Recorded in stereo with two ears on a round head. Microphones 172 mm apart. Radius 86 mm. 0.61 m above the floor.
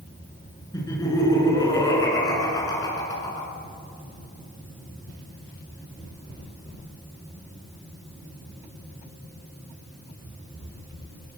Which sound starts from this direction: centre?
Laughter, at 0.7 s.